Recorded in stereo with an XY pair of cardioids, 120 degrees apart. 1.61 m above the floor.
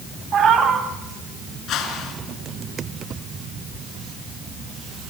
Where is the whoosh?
70° left, 4.5 m.